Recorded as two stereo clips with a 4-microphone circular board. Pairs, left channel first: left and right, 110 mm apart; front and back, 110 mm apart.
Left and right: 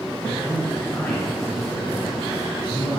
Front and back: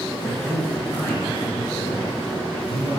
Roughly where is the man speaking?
Ahead left.